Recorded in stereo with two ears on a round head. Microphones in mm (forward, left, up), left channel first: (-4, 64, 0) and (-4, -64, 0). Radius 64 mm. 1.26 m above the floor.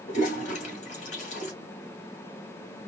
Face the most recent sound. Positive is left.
turn(degrees=55)  # may be behind; listen again after turning